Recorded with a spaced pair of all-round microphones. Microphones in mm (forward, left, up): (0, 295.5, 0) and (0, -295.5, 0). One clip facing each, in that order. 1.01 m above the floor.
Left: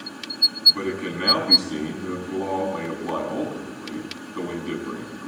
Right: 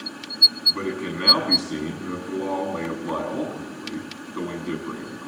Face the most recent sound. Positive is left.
turn(degrees=15)  # may be behind; listen again after turning